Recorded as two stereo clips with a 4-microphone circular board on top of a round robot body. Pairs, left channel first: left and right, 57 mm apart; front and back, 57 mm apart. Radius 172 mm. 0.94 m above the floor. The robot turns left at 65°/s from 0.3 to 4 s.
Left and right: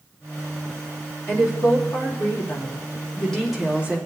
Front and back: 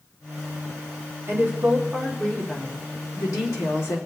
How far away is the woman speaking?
About 3 m.